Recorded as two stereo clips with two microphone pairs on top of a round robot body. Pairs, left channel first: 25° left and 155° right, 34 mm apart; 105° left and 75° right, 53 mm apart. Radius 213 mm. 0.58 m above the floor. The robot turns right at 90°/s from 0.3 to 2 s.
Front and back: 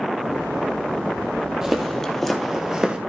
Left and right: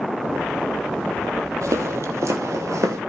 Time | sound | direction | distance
1.6 | footsteps | 75° right | 1.6 m